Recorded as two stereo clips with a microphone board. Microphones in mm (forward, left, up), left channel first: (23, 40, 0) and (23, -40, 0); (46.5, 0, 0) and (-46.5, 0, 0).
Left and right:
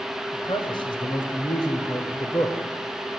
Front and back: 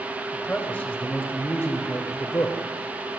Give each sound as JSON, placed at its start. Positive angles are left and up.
{"t": 0.3, "sound": "a man speaking", "azimuth_deg": 75, "distance_m": 4.0}